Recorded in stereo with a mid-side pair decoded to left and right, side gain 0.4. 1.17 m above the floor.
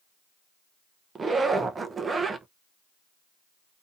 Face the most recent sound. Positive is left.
turn(degrees=-40)